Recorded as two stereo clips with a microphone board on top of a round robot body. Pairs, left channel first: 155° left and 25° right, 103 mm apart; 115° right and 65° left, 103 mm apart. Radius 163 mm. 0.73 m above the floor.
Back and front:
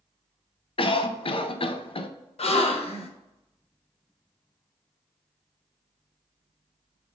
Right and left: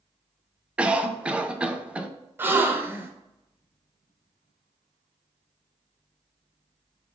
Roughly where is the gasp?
Behind left.